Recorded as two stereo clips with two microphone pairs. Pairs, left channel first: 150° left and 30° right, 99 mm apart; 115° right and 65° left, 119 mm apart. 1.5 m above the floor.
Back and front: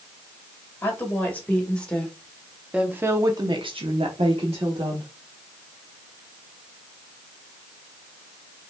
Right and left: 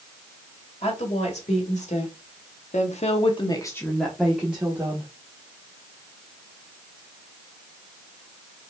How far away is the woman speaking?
About 2.5 m.